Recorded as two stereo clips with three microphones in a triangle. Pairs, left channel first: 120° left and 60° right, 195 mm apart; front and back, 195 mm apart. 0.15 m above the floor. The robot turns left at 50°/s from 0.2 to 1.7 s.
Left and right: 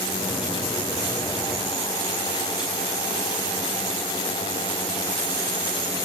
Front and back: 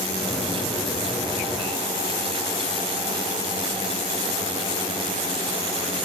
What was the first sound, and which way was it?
Only background noise.